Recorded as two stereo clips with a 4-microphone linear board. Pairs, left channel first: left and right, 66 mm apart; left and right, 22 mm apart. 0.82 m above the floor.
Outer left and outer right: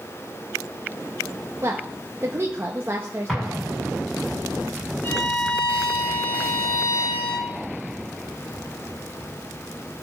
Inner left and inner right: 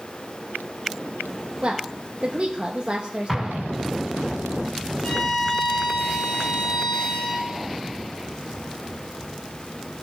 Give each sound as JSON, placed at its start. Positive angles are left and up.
{"t": 1.6, "sound": "a woman speaking", "side_deg": -35, "distance_m": 0.9}
{"t": 3.3, "sound": "an explosion", "side_deg": 0, "distance_m": 5.5}
{"t": 5.0, "sound": "a violin", "side_deg": 30, "distance_m": 4.0}